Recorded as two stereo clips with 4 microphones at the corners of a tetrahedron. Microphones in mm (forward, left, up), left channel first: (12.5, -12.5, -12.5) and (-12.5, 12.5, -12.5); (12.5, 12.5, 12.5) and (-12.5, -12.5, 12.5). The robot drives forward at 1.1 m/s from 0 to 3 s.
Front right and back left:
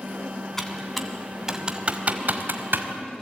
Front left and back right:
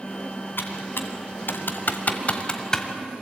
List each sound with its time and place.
0.6 s typing on a keyboard: 35° left, 2 m; by 2.9 s 125° left, 1.4 m